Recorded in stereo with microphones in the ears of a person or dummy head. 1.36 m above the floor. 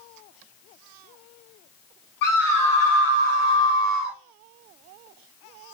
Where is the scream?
65° left (ahead or behind), 2 m; by 4.2 s 80° left, 1.4 m.